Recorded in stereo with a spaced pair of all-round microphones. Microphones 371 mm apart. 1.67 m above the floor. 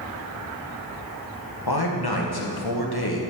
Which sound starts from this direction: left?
A man speaking, at 1.7 s.